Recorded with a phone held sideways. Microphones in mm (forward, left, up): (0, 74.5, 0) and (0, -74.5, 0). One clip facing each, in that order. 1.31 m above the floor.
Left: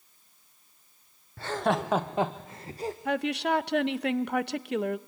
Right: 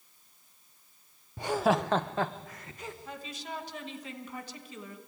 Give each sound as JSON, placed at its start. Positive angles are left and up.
{"t": 1.4, "sound": "laughter", "side_deg": -20, "distance_m": 0.7}
{"t": 3.0, "sound": "a woman speaking", "side_deg": 70, "distance_m": 0.8}